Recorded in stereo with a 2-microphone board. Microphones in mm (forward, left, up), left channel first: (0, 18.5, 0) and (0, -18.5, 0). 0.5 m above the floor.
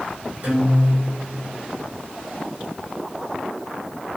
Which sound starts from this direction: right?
A guitar, at 0.4 s.